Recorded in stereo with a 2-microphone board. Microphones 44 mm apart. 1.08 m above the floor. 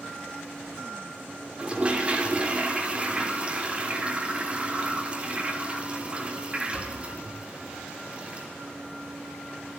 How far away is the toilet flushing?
About 3.5 m.